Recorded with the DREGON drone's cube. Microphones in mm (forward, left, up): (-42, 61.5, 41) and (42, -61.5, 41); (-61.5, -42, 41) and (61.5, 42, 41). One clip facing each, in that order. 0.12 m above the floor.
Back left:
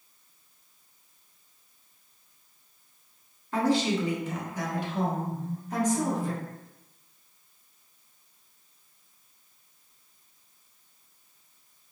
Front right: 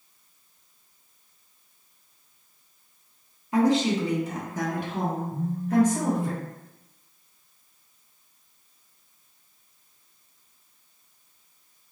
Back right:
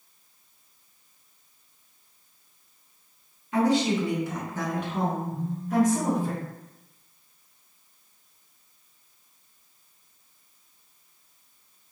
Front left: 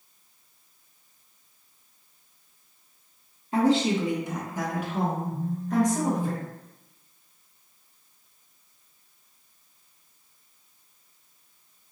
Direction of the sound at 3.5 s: 10° left.